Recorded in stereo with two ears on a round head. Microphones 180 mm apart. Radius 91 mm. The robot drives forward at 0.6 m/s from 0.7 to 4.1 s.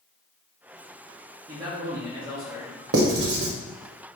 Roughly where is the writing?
Right.